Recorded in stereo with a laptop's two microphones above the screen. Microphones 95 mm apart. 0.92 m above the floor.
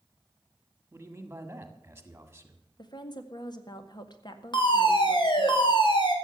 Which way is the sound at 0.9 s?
20° right (ahead or behind).